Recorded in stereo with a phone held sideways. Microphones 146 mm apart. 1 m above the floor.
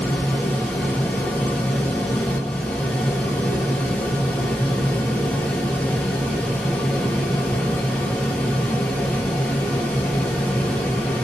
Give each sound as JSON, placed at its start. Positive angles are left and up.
{"t": 0.0, "sound": "a fan", "side_deg": 10, "distance_m": 1.2}